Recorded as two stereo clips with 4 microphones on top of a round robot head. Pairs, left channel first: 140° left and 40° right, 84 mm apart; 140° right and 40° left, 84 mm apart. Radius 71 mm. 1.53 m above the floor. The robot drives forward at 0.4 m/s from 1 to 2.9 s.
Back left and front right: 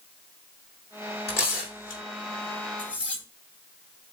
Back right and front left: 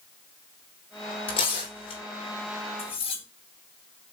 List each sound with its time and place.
1.3 s tearing paper: 160° right, 4 m
2.8 s cutlery clinking: 140° right, 2 m